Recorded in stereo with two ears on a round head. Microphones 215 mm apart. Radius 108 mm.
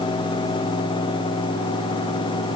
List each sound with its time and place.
Only background noise.